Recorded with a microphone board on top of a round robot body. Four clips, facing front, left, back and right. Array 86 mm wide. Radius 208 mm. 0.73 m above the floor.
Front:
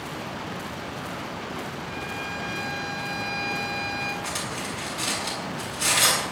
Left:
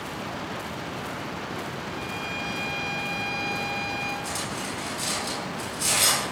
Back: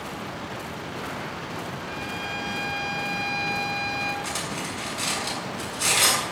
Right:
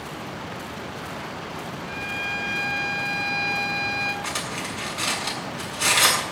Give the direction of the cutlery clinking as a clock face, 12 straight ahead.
3 o'clock.